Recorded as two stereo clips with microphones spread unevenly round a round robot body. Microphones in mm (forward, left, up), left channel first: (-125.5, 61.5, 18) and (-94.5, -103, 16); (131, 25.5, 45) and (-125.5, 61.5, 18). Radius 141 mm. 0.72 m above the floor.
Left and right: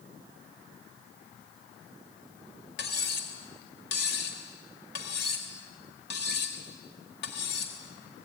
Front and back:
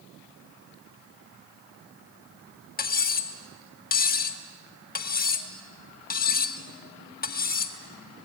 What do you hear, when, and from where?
2.8 s cutlery clinking: 50° left, 1.5 m